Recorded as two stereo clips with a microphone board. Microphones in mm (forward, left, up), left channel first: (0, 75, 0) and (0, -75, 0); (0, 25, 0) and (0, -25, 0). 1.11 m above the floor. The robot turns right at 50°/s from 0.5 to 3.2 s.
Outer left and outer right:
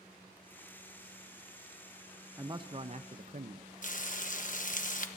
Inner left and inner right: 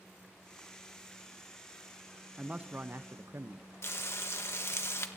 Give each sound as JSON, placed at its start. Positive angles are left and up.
{"t": 2.4, "sound": "a man speaking", "azimuth_deg": -160, "distance_m": 0.9}
{"t": 3.8, "sound": "frying", "side_deg": 60, "distance_m": 1.3}